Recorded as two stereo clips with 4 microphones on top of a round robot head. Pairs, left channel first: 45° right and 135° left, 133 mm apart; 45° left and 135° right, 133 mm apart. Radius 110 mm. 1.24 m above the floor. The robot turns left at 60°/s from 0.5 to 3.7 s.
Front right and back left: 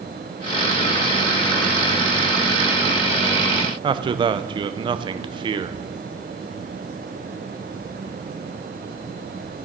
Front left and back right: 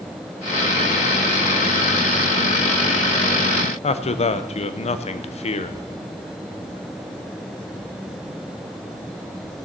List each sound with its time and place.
3.8 s a man speaking: 85° left, 0.8 m